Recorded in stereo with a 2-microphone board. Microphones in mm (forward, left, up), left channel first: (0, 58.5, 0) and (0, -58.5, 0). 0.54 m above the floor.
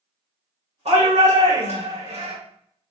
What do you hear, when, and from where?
0.8 s a shout: 65° right (ahead or behind), 1.6 m